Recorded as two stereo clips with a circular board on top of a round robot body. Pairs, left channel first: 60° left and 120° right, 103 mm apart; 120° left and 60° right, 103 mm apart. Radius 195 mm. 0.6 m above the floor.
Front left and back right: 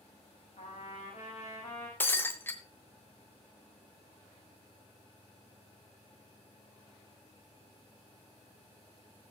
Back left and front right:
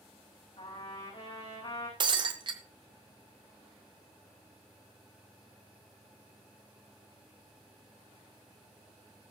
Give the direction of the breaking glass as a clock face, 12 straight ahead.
12 o'clock.